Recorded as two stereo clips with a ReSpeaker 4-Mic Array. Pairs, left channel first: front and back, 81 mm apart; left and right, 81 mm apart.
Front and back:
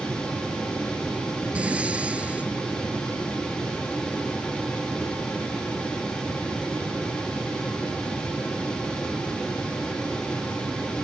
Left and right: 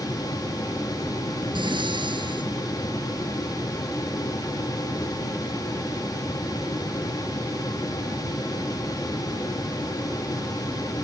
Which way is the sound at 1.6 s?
105° right.